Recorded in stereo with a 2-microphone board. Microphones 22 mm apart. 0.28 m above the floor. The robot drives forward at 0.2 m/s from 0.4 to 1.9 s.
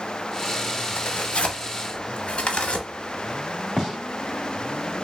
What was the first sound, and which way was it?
Tearing paper, 60° left (ahead or behind).